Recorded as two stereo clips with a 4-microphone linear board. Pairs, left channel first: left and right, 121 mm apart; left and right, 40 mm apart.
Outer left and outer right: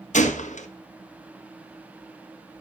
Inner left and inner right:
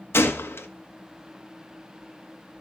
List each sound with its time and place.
0.1 s a gunshot: 85° left, 1.3 m